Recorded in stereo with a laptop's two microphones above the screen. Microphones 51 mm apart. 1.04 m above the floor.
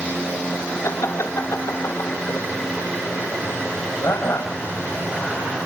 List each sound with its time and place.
0.8 s laughter: 75° left (ahead or behind), 3 m; by 4.5 s 60° left (ahead or behind), 7 m